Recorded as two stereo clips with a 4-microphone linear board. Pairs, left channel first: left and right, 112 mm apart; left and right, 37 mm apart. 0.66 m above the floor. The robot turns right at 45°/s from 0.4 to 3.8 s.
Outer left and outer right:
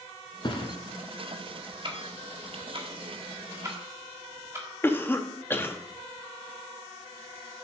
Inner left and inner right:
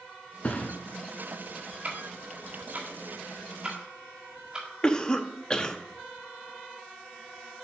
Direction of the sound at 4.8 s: 20° left (ahead or behind).